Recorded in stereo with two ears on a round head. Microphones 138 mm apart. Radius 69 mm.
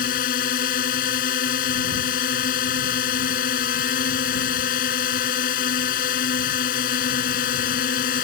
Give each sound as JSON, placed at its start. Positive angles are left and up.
{"t": 0.0, "sound": "a drone", "side_deg": 60}